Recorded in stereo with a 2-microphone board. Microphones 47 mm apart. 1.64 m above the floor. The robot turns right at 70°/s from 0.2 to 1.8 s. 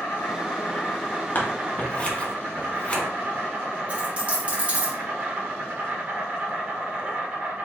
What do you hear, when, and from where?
0.0 s an insect: 105° left, 1.2 m; by 7.7 s 140° right, 1.2 m
1.4 s scissors: 40° left (ahead or behind), 0.8 m; by 3.0 s 25° left (ahead or behind), 0.8 m
3.9 s a dropped coin: 30° right (ahead or behind), 1.2 m